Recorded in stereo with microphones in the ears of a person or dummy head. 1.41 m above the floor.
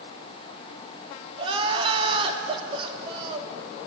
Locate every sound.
1.4 s crying: 30° right (ahead or behind), 2.5 m